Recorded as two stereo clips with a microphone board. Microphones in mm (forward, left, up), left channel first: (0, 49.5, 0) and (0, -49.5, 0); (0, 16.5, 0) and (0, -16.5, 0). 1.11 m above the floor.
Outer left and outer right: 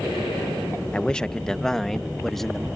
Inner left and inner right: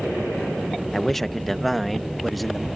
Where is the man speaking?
10° left (ahead or behind); by 2.7 s 5° left (ahead or behind).